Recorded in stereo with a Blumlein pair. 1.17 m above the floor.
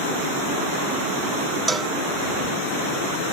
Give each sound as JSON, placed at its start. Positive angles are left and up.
{"t": 1.7, "sound": "a cowbell", "azimuth_deg": -10}